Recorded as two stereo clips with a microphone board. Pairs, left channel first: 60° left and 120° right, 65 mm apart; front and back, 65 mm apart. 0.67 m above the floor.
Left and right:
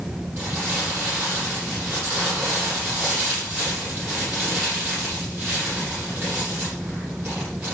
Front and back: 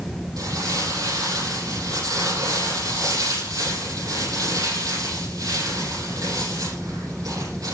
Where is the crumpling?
Straight behind, 8 m.